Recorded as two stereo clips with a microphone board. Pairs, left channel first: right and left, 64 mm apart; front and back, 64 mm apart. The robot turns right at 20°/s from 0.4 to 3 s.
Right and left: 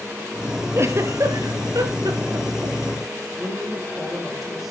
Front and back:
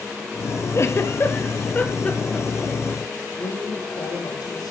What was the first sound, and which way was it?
A giggle, 45° left.